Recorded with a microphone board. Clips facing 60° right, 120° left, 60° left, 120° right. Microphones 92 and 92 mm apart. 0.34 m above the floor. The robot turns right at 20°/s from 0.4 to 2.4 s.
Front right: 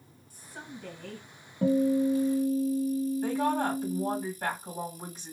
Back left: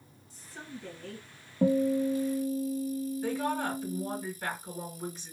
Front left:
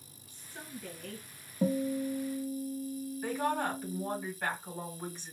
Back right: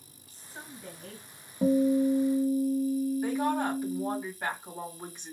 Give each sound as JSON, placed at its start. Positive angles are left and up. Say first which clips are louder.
{"t": 0.3, "sound": "a woman speaking", "louder": "even, even", "azimuth_deg": -75, "distance_m": 1.9}
{"t": 1.6, "sound": "a guitar", "louder": "front right 1 dB, back right 7 dB", "azimuth_deg": 175, "distance_m": 1.0}
{"t": 3.2, "sound": "a woman speaking", "louder": "front right 2 dB, back right 4 dB", "azimuth_deg": -55, "distance_m": 2.5}